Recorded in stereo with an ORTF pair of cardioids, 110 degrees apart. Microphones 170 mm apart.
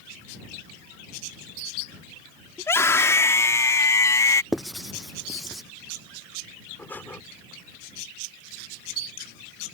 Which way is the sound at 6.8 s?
10° left.